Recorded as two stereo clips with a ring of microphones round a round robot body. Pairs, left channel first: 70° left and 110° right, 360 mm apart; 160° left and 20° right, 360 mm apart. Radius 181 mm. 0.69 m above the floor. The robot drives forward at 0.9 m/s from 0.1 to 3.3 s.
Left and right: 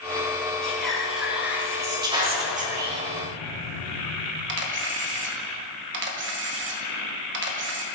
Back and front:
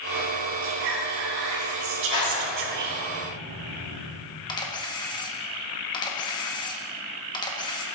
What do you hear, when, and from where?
0.6 s whispering: 20° right, 3 m; by 3.1 s 60° right, 1.5 m
2.1 s a clap: 170° left, 3 m; by 4.0 s 175° left, 4 m
4.5 s a camera shutter: 135° right, 1.1 m